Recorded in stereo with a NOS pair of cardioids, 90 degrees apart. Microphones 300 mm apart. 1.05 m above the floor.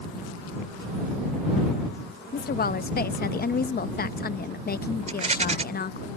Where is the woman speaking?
30° left.